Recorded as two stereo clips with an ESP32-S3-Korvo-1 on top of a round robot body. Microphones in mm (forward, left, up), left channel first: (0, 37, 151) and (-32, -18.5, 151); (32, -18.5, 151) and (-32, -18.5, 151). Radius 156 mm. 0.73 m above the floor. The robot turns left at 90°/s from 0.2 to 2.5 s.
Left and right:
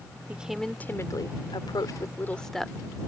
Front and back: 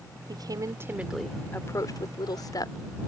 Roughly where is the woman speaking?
Behind.